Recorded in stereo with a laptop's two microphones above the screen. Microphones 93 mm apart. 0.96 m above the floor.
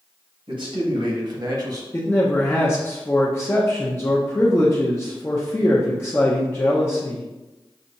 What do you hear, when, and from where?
0.5 s a man speaking: 65° right (ahead or behind), 1.6 m; by 1.8 s 40° right (ahead or behind), 1.0 m
1.9 s a man speaking: 25° left (ahead or behind), 0.6 m